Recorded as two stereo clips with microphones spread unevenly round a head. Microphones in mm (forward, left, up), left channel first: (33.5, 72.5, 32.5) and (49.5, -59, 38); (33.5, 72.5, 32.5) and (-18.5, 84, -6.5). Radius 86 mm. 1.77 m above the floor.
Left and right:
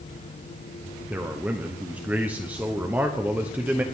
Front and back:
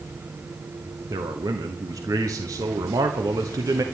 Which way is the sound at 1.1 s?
165° right.